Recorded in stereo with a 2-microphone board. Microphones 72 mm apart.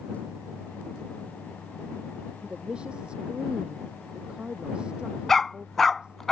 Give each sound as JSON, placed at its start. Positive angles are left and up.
{"t": 2.4, "sound": "a woman speaking", "side_deg": -10}
{"t": 5.3, "sound": "a dog barking", "side_deg": 5}